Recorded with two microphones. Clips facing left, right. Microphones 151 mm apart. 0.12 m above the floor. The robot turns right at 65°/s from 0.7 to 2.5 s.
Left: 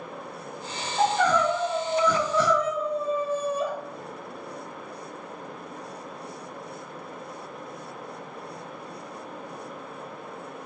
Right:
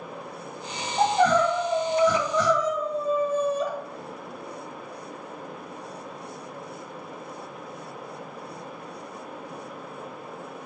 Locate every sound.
1.0 s crying: 85° right, 1.8 m; by 3.7 s 15° left, 1.8 m